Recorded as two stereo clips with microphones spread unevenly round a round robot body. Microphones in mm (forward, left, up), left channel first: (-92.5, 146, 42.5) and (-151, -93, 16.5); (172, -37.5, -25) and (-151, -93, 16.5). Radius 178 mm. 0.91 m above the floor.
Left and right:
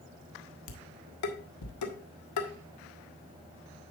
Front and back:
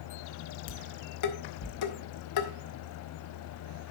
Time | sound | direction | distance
0.7 | dishes clattering | 50° left | 1.5 m